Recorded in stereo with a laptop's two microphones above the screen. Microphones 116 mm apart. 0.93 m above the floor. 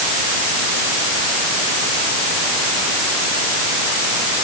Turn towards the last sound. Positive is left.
No sound to turn to.